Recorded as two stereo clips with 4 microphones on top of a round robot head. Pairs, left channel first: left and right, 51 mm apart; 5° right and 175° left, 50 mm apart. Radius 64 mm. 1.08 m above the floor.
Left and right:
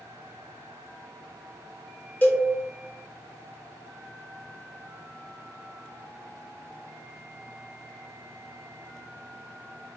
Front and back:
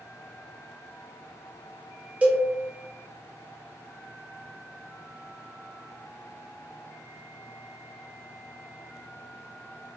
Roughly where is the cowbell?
Behind left.